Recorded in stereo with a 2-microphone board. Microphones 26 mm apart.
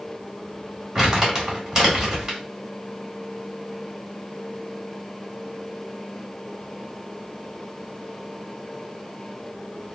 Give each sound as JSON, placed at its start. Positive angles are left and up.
{"t": 0.9, "sound": "crumpling", "side_deg": -20, "distance_m": 1.6}